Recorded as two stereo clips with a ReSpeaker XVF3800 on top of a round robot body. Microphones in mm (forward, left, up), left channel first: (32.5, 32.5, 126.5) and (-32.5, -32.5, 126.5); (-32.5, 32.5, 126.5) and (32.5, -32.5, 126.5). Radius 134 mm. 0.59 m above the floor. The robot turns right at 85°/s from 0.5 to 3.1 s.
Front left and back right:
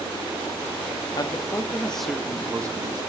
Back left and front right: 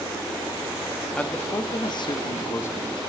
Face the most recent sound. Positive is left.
turn(degrees=-135)